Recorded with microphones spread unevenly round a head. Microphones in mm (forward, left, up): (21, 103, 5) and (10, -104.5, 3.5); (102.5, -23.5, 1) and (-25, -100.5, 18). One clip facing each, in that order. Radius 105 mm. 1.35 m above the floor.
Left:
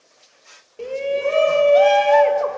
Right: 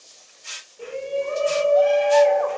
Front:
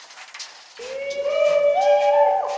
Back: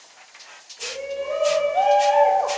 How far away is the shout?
About 1.1 m.